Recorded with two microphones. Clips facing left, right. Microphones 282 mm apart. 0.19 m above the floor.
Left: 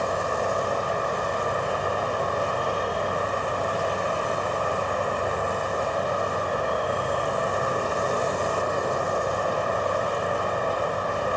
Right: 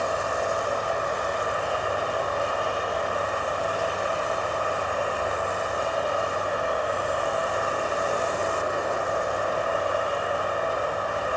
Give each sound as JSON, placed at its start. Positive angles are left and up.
{"t": 0.0, "sound": "an insect", "side_deg": 45, "distance_m": 1.6}